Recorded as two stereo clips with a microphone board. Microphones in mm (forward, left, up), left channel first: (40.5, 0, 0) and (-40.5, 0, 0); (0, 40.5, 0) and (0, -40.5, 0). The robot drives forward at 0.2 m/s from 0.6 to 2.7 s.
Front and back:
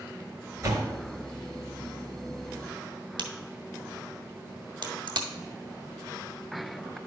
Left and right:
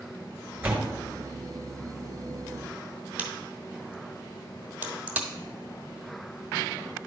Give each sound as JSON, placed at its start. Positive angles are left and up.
{"t": 0.6, "sound": "a door slam", "azimuth_deg": -155, "distance_m": 1.8}
{"t": 3.2, "sound": "a crack", "azimuth_deg": -160, "distance_m": 1.1}